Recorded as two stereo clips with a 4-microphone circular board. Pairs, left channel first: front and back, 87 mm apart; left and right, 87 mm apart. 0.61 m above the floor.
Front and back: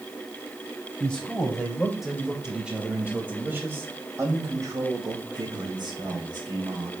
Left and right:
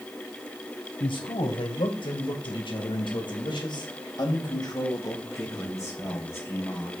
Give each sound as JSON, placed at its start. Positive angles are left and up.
{"t": 1.0, "sound": "a man speaking", "azimuth_deg": 80, "distance_m": 3.0}